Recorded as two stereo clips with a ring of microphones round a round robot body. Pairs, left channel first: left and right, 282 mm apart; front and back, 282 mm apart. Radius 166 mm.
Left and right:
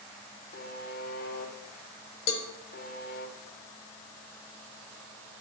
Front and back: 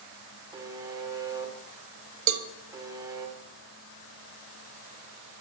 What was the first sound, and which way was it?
A buzzer, 110° left.